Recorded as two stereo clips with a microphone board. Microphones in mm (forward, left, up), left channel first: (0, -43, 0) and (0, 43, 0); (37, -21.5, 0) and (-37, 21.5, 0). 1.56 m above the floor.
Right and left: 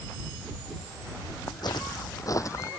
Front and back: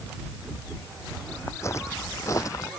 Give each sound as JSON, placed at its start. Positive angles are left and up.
{"t": 1.5, "sound": "footsteps", "azimuth_deg": -80}